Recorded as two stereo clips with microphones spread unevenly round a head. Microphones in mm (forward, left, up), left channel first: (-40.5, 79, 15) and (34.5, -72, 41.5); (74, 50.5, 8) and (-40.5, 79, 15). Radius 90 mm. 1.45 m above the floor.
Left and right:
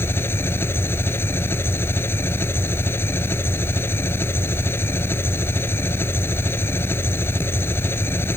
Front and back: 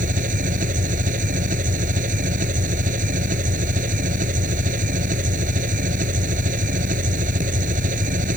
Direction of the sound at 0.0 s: 165° right.